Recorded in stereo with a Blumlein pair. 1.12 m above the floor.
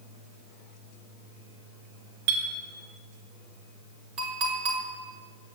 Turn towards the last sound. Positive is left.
turn(degrees=-40)